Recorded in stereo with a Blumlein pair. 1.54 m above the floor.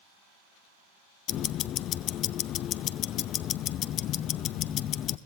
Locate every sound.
1.3 s ticking: 35° left, 0.6 m